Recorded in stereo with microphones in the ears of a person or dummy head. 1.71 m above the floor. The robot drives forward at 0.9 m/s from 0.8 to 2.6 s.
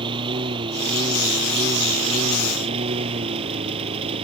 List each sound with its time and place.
0.0 s a lawn mower: 30° right (ahead or behind)